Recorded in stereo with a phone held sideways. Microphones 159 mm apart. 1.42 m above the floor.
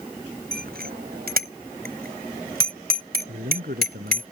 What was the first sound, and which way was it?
A bicycle bell, 75° right (ahead or behind).